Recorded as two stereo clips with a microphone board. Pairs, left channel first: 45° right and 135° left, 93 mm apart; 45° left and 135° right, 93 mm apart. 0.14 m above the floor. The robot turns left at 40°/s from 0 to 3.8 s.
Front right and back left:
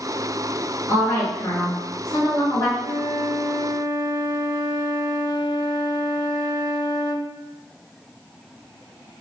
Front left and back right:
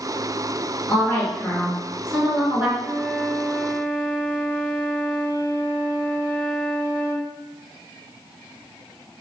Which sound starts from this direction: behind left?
A flute, at 2.8 s.